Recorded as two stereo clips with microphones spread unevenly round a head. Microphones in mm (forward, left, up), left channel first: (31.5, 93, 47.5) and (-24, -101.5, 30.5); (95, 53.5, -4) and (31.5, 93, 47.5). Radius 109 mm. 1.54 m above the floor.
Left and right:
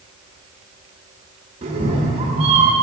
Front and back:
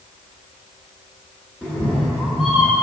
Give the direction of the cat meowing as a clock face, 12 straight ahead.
5 o'clock.